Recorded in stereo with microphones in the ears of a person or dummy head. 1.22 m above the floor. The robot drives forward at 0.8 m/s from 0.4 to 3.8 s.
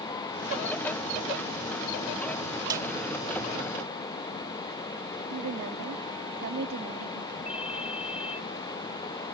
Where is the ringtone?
35° left (ahead or behind).